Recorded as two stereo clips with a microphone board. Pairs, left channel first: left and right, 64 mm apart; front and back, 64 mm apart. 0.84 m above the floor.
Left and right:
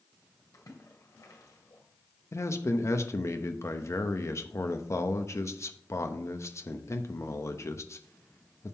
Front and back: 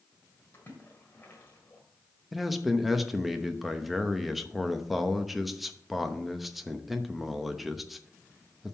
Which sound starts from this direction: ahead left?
A splash, at 0.5 s.